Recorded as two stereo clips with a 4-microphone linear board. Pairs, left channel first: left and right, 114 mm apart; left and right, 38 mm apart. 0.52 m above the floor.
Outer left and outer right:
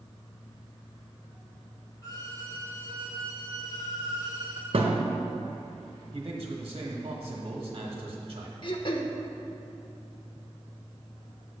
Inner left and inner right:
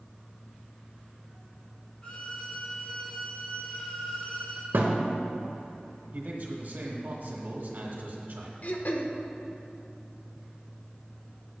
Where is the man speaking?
50° right (ahead or behind), 1.3 m.